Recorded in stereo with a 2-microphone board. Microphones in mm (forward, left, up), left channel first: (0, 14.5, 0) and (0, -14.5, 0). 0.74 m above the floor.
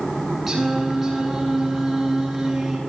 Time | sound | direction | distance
0.5 | singing | 10° right (ahead or behind) | 9 m